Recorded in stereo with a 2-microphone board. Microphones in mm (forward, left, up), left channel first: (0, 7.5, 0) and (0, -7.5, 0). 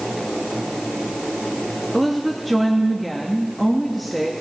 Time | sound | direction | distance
1.9 | a woman speaking | centre (ahead or behind) | 1.0 m